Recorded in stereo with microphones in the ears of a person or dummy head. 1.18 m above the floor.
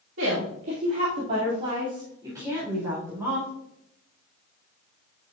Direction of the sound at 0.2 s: 70° right (ahead or behind).